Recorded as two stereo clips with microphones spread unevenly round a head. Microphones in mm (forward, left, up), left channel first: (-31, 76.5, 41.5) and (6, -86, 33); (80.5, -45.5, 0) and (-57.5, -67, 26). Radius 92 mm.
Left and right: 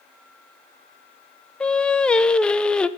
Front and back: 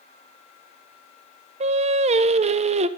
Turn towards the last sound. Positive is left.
turn(degrees=-170)